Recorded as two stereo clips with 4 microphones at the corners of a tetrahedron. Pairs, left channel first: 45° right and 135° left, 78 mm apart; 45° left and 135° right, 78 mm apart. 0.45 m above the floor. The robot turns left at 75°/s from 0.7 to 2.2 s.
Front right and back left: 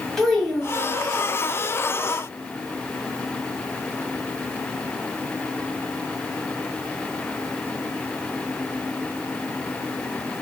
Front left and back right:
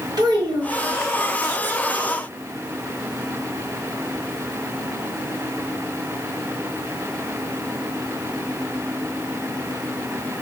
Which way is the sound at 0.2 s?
130° right.